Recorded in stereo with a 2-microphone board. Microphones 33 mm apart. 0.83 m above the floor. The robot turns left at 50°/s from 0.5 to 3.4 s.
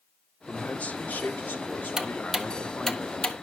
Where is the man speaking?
150° left, 2 m; by 3.0 s 25° left, 2 m.